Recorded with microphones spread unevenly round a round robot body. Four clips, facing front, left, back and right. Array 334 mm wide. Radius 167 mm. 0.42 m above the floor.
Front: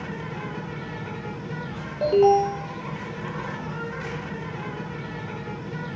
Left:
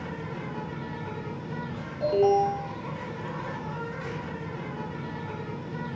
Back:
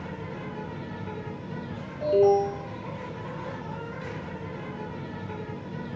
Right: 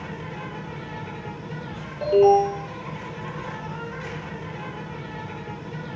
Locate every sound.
0.0 s an insect: 20° right, 0.9 m
2.0 s an alarm: 20° right, 0.9 m